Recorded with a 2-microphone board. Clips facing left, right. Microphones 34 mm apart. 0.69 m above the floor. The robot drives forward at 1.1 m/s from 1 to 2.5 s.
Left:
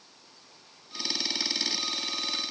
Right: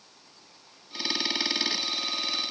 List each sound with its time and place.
Only background noise.